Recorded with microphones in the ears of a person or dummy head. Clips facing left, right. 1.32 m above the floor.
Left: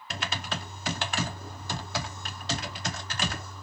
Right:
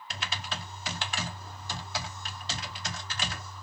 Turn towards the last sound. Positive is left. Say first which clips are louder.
# left 4 dB
turn(degrees=40)  # may be behind; listen again after turning